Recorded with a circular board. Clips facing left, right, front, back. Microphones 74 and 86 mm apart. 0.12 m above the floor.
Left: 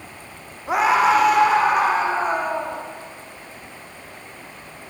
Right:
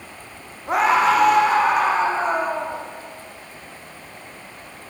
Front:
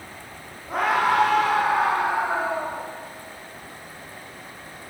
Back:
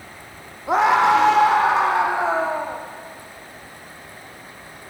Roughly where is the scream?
Behind.